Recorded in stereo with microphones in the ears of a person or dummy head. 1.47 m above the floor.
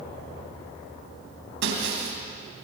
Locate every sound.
1.6 s breaking glass: 70° right (ahead or behind), 4 m